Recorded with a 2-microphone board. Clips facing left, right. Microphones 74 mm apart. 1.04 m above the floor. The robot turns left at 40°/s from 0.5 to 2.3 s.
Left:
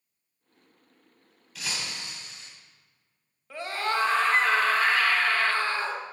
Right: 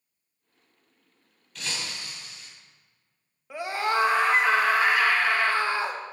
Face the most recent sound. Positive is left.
turn(degrees=-15)  # may be behind; listen again after turning